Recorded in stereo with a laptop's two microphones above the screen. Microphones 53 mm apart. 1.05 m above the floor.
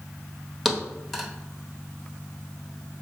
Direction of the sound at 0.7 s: Centre (ahead or behind).